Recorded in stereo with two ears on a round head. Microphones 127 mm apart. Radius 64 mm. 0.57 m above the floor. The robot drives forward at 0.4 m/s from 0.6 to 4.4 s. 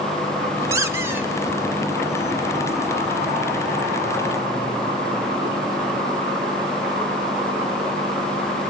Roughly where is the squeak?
Right.